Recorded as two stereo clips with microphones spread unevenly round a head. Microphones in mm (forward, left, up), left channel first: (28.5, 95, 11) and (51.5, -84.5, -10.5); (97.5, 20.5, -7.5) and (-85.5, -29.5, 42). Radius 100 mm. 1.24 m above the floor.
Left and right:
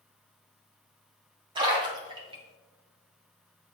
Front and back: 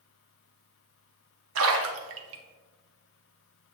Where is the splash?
145° right, 0.9 m.